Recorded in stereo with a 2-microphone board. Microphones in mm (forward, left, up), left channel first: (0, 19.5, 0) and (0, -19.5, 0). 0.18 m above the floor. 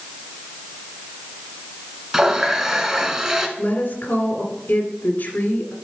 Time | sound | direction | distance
2.1 | a running tap | 10° right (ahead or behind) | 1.1 m
3.6 | a woman speaking | 45° left (ahead or behind) | 2.0 m